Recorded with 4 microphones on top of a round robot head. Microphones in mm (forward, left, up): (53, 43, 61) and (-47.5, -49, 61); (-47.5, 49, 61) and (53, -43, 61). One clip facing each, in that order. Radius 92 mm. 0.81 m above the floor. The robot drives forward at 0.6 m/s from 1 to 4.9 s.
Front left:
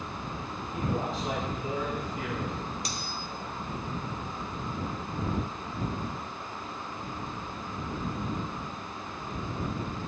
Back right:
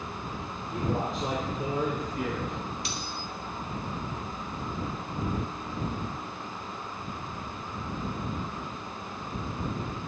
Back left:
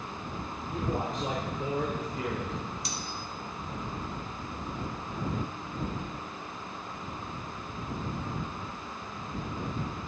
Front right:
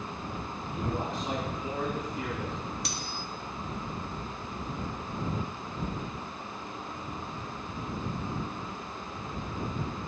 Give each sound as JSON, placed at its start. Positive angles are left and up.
{"t": 0.7, "sound": "a man speaking", "azimuth_deg": 180, "distance_m": 3.5}
{"t": 2.9, "sound": "cutlery clinking", "azimuth_deg": -10, "distance_m": 0.7}